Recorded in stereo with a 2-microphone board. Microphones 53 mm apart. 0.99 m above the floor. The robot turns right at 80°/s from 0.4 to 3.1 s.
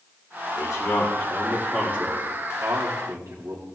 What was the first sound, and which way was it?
A man speaking, 75° left (ahead or behind).